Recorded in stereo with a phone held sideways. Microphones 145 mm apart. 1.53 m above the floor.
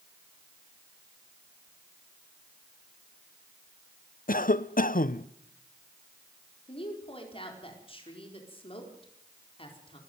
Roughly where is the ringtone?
I don't hear a ringtone.